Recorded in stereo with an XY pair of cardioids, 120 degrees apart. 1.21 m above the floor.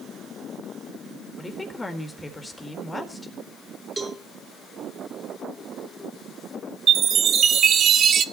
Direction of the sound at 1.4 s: 20° left.